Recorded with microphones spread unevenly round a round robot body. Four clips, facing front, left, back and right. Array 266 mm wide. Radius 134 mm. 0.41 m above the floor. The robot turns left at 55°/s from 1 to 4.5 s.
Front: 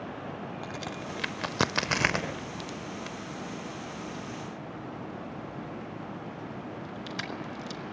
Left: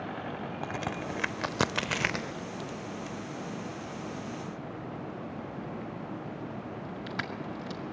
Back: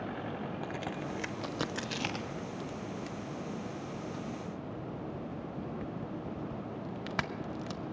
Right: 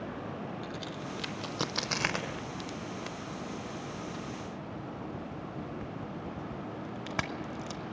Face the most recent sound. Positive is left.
turn(degrees=-125)